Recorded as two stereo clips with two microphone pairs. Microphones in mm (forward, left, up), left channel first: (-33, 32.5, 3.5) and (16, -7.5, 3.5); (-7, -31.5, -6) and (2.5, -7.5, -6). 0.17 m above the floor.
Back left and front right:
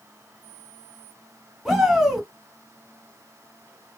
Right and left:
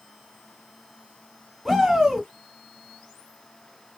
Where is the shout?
45° left, 1.2 m.